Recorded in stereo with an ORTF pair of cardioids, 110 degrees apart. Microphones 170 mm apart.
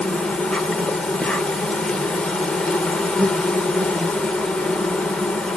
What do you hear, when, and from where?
0.0 s an insect: 5° left, 0.8 m